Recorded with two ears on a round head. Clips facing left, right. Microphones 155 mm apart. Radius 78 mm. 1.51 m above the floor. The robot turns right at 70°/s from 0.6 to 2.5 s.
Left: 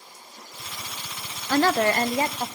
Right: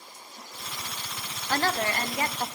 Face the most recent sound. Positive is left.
turn(degrees=180)